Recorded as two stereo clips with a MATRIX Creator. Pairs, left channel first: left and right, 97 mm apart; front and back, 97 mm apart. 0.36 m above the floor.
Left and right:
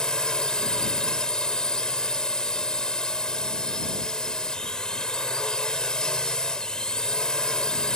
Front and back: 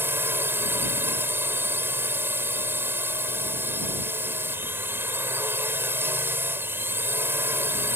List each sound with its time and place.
0.0 s a drone: 160° left